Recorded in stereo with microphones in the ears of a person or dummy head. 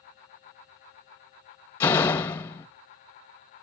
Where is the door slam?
30° left (ahead or behind), 0.9 m.